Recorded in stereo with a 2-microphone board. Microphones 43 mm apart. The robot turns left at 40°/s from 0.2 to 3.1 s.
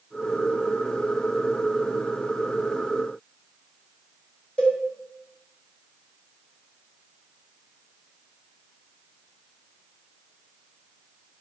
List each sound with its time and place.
4.6 s a cowbell: 25° left (ahead or behind), 1.4 m